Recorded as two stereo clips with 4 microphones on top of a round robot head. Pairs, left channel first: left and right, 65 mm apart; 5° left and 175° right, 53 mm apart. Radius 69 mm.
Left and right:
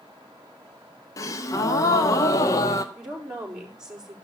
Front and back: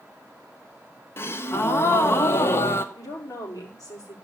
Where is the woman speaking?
10° right, 4.5 m.